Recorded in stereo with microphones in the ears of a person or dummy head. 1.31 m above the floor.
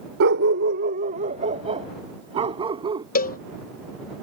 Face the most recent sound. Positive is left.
turn(degrees=45)  # may be behind; listen again after turning